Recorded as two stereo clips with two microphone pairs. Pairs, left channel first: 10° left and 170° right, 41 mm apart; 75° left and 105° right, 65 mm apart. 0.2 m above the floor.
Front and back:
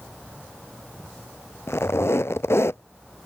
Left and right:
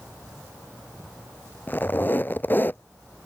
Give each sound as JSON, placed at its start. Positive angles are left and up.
{"t": 1.7, "sound": "a squeak", "azimuth_deg": 15}